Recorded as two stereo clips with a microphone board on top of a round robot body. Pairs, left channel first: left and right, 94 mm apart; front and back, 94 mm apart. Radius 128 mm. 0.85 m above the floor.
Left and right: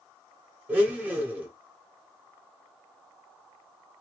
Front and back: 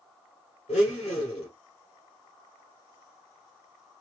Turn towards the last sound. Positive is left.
turn(degrees=-20)